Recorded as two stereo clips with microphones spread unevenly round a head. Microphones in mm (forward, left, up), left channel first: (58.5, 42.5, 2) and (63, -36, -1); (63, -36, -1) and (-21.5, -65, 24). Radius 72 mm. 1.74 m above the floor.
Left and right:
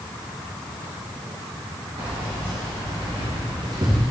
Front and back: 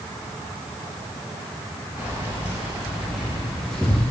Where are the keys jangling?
95° right, 2.5 m; by 4.0 s 65° right, 1.3 m.